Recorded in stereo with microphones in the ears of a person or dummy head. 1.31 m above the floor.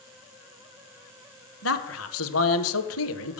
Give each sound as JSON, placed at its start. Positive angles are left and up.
{"t": 1.6, "sound": "a man speaking", "side_deg": 75, "distance_m": 0.8}